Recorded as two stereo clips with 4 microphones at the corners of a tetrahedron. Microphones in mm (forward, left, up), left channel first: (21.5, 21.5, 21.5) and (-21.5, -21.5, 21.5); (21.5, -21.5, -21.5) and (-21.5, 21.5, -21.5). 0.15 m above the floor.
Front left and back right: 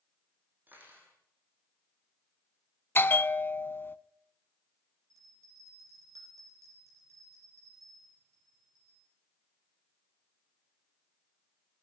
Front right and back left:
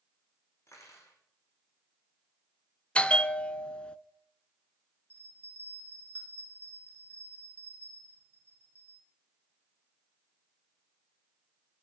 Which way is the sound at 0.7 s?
80° right.